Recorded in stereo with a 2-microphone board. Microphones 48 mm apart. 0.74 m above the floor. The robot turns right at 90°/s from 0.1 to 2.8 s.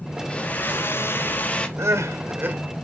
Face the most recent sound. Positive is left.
turn(degrees=-15)